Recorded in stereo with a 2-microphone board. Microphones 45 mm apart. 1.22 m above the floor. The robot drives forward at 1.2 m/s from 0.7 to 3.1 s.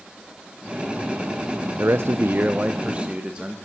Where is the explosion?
I don't hear an explosion.